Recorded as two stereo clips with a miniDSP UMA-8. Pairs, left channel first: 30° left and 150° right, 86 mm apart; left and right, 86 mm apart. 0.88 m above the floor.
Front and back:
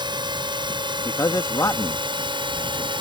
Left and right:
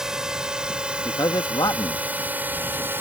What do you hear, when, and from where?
0.0 s a drone: 175° right; by 3.0 s 155° right
1.1 s a man speaking: 70° left